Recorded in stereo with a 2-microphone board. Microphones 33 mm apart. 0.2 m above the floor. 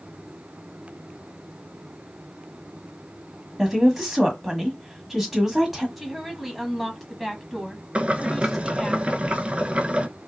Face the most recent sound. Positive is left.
turn(degrees=-35)  # may be behind; listen again after turning